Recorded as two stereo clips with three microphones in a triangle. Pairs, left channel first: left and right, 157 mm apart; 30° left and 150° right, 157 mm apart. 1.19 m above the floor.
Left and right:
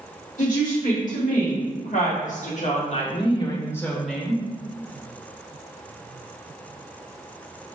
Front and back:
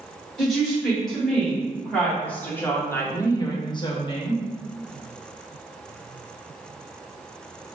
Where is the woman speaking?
120° left, 1.7 m; by 4.4 s 15° right, 0.6 m.